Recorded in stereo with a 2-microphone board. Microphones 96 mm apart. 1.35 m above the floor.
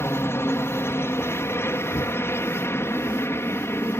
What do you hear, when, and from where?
0.0 s a helicopter: 25° left (ahead or behind)
1.9 s knocking: 55° left (ahead or behind)